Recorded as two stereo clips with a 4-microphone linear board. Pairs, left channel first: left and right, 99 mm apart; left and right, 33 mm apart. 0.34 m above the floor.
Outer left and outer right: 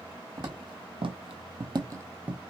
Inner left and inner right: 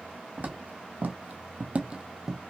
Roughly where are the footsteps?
Right.